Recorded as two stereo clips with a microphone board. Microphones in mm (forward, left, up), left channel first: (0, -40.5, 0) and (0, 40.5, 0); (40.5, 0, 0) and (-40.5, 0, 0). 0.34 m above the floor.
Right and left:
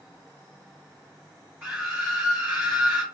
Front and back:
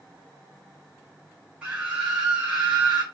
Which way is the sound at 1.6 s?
125° left.